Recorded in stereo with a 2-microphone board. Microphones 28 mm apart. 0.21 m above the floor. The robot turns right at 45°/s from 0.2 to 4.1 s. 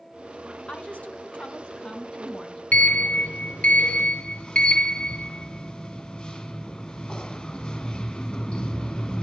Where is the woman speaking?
85° left, 1.9 m; by 2.6 s 170° left, 1.9 m.